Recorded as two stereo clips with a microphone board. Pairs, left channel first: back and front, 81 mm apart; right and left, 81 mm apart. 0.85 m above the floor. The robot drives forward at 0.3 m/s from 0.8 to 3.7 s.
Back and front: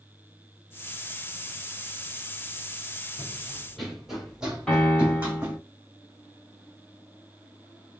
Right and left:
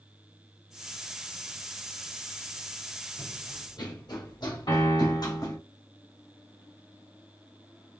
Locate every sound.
3.2 s running footsteps: 100° right, 1.5 m; by 5.6 s 65° right, 2 m
4.7 s a piano: 100° right, 2 m